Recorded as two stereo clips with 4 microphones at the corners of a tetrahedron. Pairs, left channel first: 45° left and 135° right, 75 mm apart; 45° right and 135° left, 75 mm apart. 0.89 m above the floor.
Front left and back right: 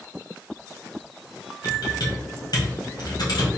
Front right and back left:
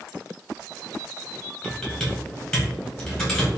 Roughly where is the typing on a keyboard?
Ahead left.